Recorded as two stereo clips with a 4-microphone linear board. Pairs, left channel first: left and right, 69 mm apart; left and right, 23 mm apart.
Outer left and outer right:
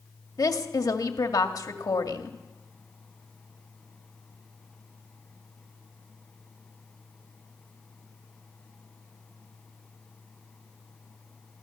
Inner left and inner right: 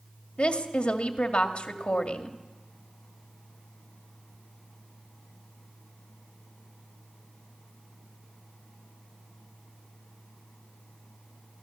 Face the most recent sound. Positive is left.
turn(degrees=55)  # may be behind; listen again after turning